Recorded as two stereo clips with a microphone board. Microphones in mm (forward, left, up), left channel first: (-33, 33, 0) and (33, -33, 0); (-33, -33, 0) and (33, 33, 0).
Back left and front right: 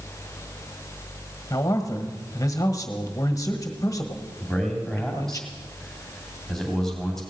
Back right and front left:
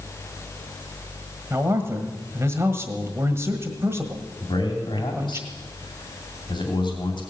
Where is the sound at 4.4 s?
140° right, 2.5 m.